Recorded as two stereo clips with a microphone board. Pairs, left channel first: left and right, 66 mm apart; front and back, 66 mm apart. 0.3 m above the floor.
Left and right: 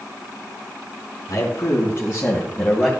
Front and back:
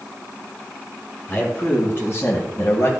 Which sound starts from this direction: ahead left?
A man speaking, at 1.3 s.